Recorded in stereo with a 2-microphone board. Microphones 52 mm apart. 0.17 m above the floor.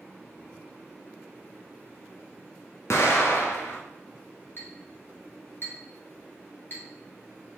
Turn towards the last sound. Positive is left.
turn(degrees=45)  # may be behind; listen again after turning